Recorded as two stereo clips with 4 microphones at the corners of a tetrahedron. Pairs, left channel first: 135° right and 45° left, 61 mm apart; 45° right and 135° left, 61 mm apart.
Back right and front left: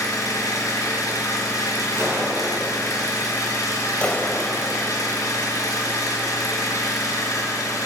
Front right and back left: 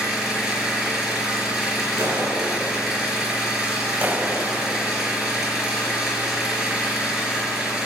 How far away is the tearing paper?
No tearing paper in this recording.